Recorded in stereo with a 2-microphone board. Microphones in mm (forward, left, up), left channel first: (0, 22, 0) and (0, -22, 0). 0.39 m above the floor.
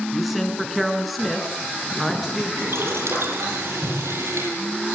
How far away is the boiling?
About 9 m.